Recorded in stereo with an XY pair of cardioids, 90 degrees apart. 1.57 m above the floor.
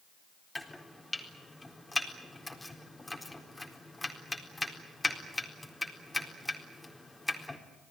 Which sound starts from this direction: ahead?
Chopping, at 0.6 s.